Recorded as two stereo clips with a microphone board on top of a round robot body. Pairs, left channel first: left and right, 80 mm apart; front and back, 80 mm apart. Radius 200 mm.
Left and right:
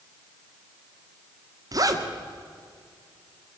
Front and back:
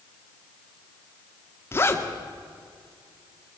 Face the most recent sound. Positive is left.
turn(degrees=-55)